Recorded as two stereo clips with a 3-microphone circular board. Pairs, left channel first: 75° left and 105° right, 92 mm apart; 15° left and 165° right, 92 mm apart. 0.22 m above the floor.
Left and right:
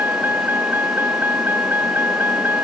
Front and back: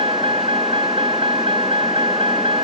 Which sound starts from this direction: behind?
A vehicle, at 0.0 s.